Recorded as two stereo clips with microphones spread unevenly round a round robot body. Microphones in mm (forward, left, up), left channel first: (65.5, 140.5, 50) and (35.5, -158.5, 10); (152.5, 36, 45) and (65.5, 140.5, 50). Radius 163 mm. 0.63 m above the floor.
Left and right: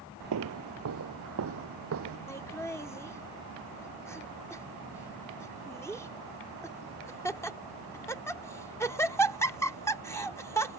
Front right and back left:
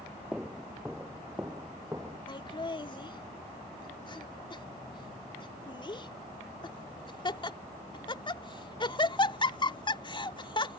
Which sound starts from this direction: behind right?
Footsteps, at 0.3 s.